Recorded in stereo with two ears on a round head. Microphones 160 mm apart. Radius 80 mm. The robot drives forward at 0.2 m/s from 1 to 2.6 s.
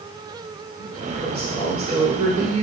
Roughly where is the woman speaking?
Right.